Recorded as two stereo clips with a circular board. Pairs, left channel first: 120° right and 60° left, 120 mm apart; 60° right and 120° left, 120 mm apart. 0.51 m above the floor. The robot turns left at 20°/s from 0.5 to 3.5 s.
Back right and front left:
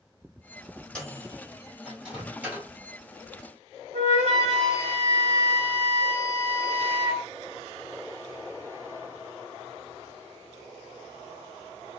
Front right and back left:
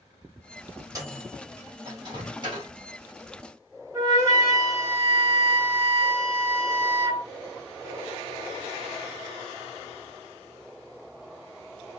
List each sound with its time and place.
0.9 s a microwave: 160° left, 1.3 m; by 2.7 s 125° left, 1.3 m
3.9 s a flute: 55° left, 1.2 m